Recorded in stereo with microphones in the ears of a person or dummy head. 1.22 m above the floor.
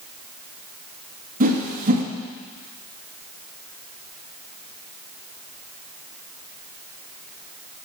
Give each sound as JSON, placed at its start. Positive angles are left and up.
{"t": 1.4, "sound": "a whoosh", "side_deg": -45, "distance_m": 1.6}